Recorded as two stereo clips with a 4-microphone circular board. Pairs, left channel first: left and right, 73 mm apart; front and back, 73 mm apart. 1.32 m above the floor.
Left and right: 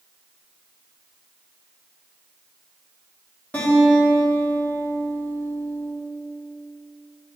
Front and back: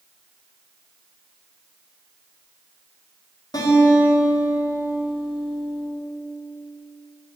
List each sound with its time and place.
3.5 s a guitar: 20° left, 2.5 m